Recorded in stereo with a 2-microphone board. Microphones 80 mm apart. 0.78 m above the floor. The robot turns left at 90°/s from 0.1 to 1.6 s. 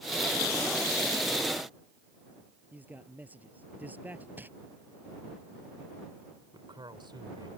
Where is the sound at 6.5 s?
75° right (ahead or behind).